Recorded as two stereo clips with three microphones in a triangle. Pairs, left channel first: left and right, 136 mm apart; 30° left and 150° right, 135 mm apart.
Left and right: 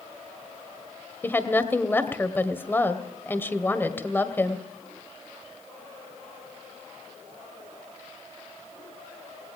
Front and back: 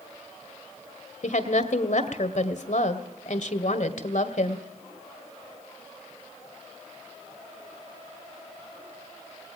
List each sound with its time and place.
1.2 s a woman speaking: 15° left, 1.9 m